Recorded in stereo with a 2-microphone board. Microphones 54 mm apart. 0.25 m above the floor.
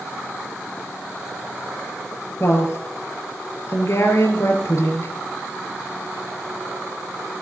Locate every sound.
2.4 s a woman speaking: 55° left (ahead or behind), 4.5 m